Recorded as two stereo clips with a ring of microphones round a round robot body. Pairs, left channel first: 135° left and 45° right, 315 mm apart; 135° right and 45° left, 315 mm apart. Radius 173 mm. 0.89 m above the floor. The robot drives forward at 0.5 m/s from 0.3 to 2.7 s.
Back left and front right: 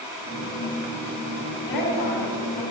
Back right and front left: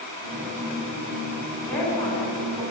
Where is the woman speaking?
140° left, 7 m.